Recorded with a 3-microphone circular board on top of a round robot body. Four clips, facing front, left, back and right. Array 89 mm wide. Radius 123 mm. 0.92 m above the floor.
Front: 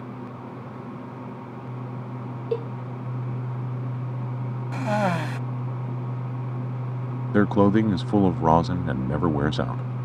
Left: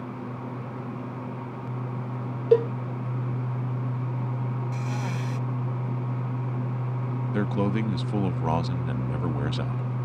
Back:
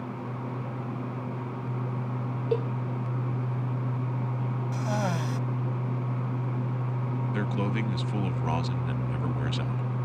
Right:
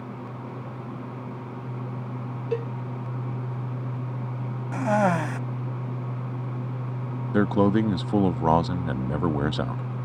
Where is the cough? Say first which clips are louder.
Right 10 dB, front 7 dB; 65° right.